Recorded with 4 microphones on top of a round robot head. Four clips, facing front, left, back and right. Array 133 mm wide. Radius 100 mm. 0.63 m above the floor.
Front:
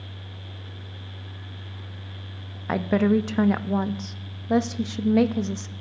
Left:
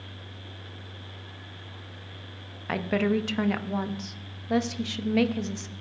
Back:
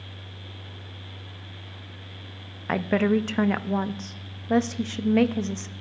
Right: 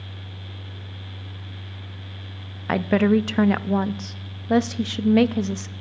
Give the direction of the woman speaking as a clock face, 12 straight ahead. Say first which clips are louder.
Right 7 dB, front 1 dB; 3 o'clock.